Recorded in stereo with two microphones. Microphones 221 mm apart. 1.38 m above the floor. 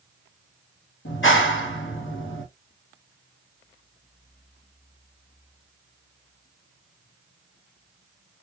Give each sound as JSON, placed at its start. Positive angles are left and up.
{"t": 1.1, "sound": "a clap", "side_deg": 65, "distance_m": 1.4}